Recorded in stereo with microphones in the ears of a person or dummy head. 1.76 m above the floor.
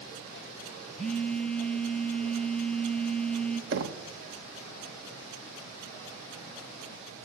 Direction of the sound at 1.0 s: 10° left (ahead or behind).